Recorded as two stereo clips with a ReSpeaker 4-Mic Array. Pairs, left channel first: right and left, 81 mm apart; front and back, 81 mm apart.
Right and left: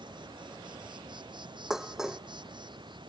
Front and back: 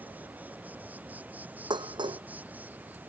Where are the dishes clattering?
175° left.